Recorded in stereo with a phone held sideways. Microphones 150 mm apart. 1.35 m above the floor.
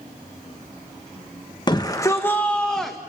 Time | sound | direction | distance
1.7 | a shout | 30° left (ahead or behind) | 1.1 m